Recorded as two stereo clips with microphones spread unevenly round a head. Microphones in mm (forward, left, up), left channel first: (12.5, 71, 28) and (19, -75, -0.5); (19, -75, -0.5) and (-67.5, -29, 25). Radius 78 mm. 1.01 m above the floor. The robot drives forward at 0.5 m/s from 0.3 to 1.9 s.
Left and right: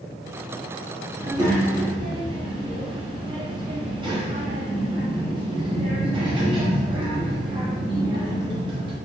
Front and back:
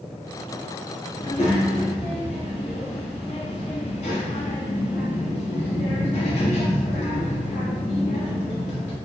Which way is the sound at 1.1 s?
25° right.